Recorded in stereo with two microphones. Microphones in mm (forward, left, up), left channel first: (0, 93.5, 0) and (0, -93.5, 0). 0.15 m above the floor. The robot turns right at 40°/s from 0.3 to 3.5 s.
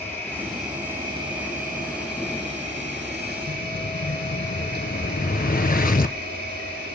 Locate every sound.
0.0 s an insect: 170° left, 5 m; by 7.0 s 60° right, 5 m
3.5 s an explosion: 50° left (ahead or behind), 1.1 m